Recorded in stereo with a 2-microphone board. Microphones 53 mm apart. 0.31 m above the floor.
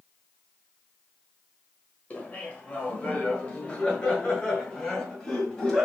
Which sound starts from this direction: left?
Laughter, at 2.1 s.